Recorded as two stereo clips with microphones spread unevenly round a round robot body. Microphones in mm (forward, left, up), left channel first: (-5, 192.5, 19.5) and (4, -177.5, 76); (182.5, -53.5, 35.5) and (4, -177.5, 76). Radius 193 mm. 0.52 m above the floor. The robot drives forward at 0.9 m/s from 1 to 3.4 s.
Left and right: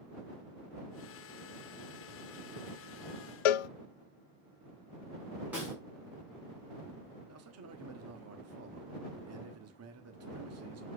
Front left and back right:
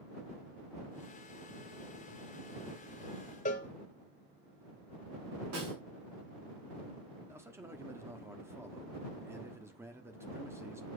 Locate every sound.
3.5 s a cowbell: 105° left, 0.6 m
5.5 s a snare drum: 175° right, 5.5 m
7.3 s a man speaking: 60° right, 1.5 m